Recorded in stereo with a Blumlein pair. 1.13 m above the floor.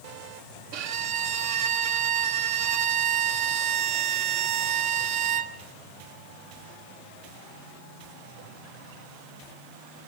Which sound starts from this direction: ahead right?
A violin, at 0.7 s.